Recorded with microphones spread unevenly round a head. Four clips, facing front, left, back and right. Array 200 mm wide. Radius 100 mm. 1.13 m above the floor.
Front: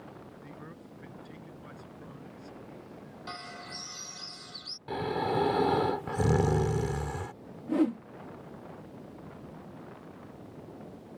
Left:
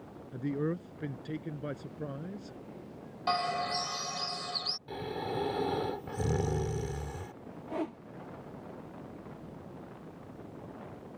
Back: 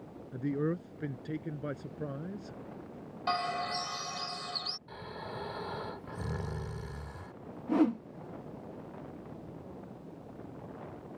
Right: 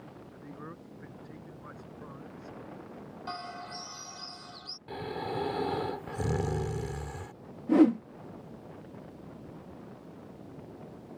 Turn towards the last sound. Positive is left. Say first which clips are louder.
# right 15 dB, even
turn(degrees=-95)